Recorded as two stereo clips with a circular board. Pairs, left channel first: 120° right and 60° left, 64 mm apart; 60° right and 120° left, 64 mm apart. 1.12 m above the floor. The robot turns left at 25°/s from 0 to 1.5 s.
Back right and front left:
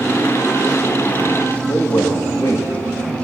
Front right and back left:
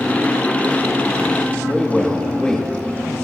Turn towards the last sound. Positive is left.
turn(degrees=-140)